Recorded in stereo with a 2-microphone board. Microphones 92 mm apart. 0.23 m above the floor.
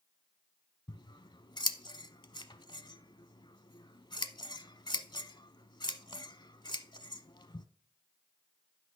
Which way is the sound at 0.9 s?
55° left (ahead or behind).